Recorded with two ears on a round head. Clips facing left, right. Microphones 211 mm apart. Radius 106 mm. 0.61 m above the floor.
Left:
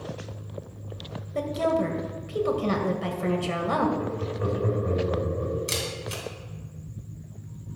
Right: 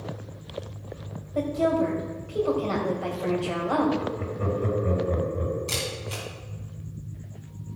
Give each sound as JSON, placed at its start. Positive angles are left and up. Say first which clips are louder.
{"t": 1.4, "sound": "a woman speaking", "louder": "right 2 dB", "side_deg": 30, "distance_m": 2.5}
{"t": 4.0, "sound": "laughter", "louder": "left 1 dB", "side_deg": -40, "distance_m": 5.0}
{"t": 5.7, "sound": "a camera shutter", "louder": "even", "side_deg": 25, "distance_m": 3.0}